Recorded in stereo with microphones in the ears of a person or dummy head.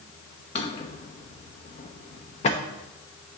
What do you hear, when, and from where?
0.6 s a drawer: 30° left (ahead or behind), 0.8 m